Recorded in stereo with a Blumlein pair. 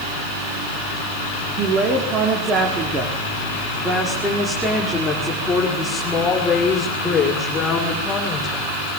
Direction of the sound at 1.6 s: 30° right.